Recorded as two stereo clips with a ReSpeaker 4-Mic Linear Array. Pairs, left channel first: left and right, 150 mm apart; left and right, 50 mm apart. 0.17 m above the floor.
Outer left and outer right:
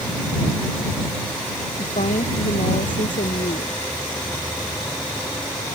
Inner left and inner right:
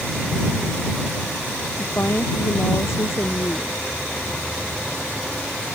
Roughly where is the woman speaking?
Left.